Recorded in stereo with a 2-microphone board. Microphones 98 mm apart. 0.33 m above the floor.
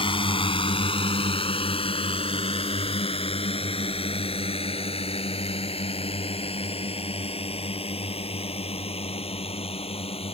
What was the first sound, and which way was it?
A drone, 65° left (ahead or behind).